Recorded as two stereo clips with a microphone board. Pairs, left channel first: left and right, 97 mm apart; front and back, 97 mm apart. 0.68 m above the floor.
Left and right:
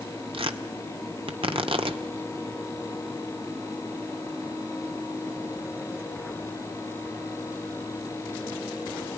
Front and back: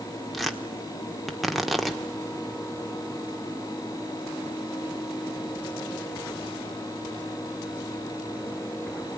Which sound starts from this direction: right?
Tearing paper, at 0.3 s.